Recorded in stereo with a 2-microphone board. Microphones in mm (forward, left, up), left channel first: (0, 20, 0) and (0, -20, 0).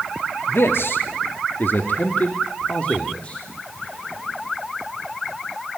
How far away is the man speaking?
About 2 m.